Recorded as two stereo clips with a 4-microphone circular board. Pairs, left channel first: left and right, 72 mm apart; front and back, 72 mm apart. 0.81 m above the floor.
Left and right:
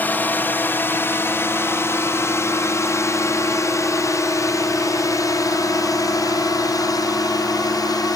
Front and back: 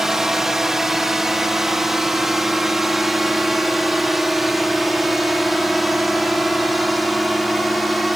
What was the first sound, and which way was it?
A drone, 105° left.